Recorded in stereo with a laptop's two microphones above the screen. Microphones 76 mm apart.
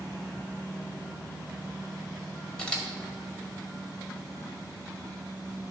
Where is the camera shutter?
10° left (ahead or behind), 1.8 m.